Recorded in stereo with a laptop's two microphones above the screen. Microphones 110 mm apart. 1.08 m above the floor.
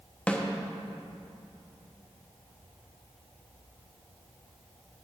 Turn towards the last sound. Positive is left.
turn(degrees=10)  # may be behind; listen again after turning